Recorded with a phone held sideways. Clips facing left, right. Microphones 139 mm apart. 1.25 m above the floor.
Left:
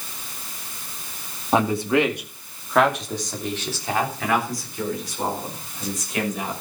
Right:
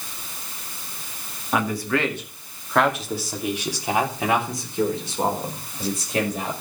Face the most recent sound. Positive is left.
turn(degrees=-35)  # may be behind; listen again after turning